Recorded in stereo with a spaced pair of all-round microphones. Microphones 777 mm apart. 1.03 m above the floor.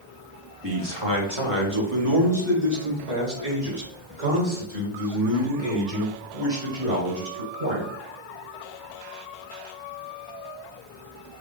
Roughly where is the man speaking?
Right.